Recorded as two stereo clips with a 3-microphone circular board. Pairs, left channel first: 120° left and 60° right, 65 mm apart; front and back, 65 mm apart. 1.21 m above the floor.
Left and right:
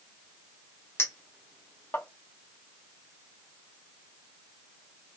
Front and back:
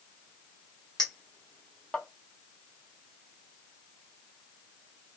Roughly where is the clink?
Left.